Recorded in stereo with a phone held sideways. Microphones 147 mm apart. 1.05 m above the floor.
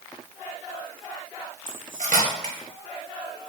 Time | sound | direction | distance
1.7 | cutlery clinking | 65° right (ahead or behind) | 0.9 m